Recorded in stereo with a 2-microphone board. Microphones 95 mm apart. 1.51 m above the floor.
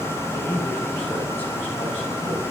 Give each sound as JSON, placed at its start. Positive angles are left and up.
{"t": 0.3, "sound": "a man speaking", "side_deg": 20, "distance_m": 9.0}